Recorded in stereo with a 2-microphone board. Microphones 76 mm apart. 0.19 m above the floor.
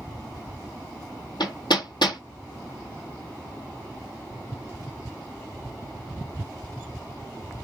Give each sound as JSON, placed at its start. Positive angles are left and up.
{"t": 1.4, "sound": "hammering", "side_deg": 75, "distance_m": 1.3}